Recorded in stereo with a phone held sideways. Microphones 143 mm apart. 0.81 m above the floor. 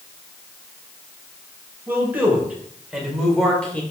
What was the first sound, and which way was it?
A man speaking, 15° right (ahead or behind).